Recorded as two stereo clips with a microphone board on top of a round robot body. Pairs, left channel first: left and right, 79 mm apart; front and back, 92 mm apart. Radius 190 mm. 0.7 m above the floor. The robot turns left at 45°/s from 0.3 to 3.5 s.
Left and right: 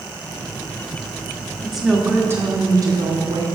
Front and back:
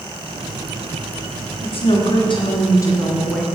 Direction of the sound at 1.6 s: Straight ahead.